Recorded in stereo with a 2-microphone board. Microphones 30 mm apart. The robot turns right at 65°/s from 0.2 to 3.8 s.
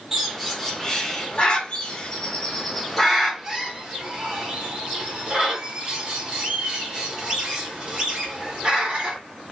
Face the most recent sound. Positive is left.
turn(degrees=-25)  # may be behind; listen again after turning